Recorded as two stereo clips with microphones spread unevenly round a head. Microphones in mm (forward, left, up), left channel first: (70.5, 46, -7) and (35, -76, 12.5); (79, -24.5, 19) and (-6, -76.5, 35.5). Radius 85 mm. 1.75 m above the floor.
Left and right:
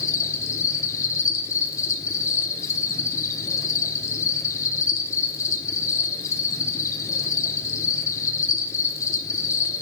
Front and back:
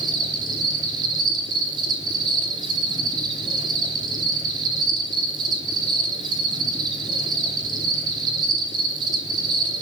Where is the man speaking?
I don't hear a man speaking.